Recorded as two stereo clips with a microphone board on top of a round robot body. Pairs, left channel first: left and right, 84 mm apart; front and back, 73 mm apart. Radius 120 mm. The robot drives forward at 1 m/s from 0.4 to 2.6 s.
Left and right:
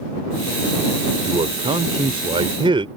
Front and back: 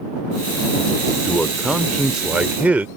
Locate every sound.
1.2 s a man speaking: 80° right; by 2.9 s 110° right